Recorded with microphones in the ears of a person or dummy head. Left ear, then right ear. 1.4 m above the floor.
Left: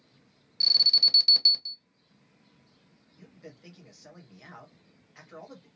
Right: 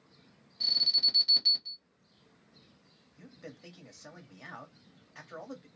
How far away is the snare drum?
No snare drum in this recording.